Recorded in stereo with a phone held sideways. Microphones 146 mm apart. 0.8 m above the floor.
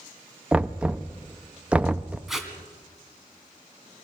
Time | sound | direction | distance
0.5 | knocking | 10° right (ahead or behind) | 0.5 m
2.3 | tape being pulled | 5° right (ahead or behind) | 2.0 m